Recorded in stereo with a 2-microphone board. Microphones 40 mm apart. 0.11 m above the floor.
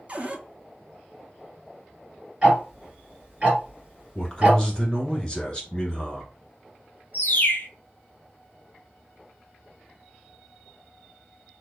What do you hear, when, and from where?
0.1 s a cupboard door: 35° right (ahead or behind), 0.5 m
2.4 s ticking: 25° right (ahead or behind), 1.8 m
4.2 s a man speaking: 25° left (ahead or behind), 1.2 m
7.1 s a bird: 60° left (ahead or behind), 0.5 m